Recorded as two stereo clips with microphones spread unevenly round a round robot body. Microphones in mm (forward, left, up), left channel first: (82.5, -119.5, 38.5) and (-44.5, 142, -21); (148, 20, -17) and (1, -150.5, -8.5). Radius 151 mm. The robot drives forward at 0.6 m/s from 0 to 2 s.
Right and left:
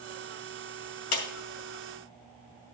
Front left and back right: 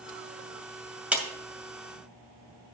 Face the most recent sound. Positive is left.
turn(degrees=-55)